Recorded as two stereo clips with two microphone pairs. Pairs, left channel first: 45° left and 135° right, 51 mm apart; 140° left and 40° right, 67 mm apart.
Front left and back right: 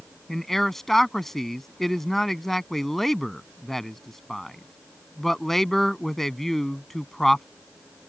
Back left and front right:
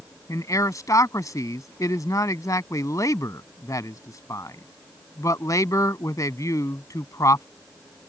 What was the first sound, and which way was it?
A man speaking, 125° left.